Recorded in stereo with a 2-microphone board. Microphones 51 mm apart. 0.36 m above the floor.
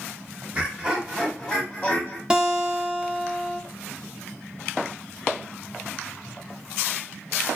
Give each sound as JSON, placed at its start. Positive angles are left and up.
{"t": 0.5, "sound": "laughter", "side_deg": -25, "distance_m": 1.0}
{"t": 2.3, "sound": "a guitar", "side_deg": -15, "distance_m": 0.6}